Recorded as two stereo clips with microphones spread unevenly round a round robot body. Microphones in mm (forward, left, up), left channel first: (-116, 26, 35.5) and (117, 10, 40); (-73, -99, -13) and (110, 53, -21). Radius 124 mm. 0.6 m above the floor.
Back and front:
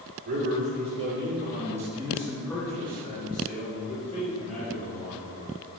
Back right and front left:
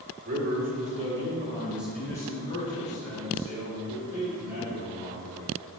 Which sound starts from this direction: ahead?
A man speaking, at 0.2 s.